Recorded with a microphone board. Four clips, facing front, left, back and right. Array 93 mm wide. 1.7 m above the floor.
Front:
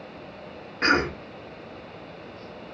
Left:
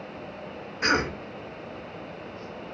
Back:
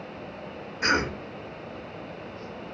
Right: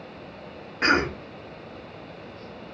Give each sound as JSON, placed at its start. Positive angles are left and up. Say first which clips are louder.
{"t": 0.8, "sound": "a cough", "louder": "right 3 dB, front 3 dB", "azimuth_deg": -50, "distance_m": 1.7}